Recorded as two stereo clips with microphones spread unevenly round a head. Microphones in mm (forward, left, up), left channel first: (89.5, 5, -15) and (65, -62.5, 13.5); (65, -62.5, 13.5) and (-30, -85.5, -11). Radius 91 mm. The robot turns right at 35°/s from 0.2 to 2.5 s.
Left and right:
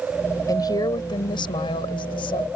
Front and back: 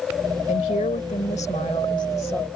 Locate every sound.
0.5 s a woman speaking: 30° left; by 2.5 s 100° left